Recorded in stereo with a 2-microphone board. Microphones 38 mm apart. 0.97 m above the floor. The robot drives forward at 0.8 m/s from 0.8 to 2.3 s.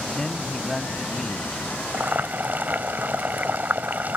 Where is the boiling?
50° right (ahead or behind); by 4.2 s 45° right (ahead or behind).